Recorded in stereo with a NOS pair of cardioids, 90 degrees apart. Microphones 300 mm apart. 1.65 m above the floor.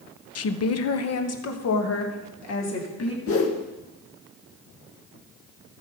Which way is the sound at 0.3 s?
55° left.